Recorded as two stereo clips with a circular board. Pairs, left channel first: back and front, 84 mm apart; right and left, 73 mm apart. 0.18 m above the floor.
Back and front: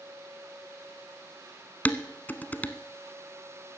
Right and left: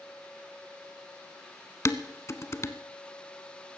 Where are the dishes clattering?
120° right, 0.9 m.